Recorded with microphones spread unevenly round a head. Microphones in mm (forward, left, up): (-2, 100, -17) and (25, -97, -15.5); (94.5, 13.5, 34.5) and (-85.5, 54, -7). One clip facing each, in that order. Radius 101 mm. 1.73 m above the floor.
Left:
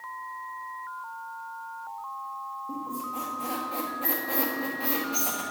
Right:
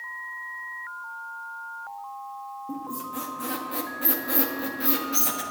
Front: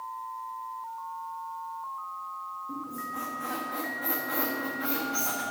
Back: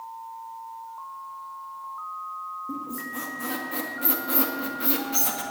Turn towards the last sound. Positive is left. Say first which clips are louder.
# right 2 dB, back 4 dB
turn(degrees=-145)